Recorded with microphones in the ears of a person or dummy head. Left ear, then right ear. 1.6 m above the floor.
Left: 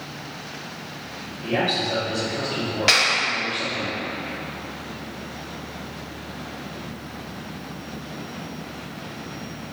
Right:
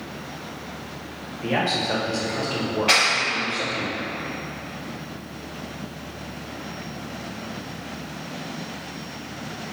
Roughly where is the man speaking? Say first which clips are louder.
Even; right.